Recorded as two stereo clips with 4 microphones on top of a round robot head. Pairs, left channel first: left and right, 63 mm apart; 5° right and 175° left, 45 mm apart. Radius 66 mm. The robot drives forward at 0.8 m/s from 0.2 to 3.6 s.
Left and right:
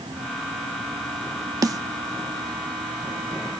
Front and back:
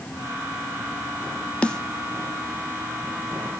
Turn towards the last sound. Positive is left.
turn(degrees=-145)